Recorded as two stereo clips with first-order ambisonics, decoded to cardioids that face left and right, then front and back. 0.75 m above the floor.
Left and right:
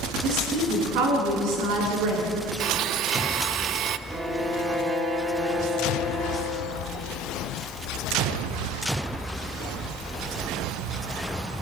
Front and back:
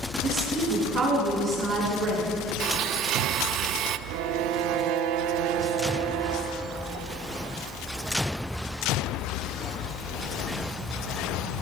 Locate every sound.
0.2 s a woman speaking: 115° right, 7.5 m; by 2.3 s 110° right, 8.5 m
2.6 s a blender: 135° right, 0.7 m
4.1 s a violin: 170° right, 1.9 m